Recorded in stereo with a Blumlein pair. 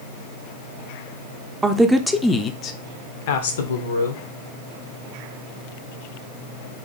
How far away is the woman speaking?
About 0.8 m.